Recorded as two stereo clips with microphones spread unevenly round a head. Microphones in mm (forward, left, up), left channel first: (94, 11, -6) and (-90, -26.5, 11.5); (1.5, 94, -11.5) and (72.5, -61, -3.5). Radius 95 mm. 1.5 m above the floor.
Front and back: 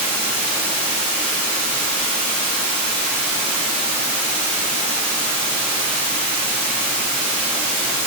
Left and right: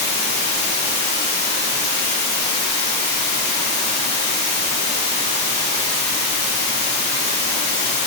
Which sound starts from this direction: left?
Running water, at 0.0 s.